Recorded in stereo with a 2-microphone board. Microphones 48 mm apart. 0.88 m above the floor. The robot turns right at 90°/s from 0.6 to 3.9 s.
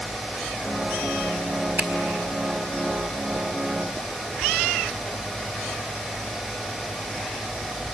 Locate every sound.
1.8 s a finger snap: 30° right (ahead or behind), 1.4 m; by 1.9 s 20° right (ahead or behind), 1.4 m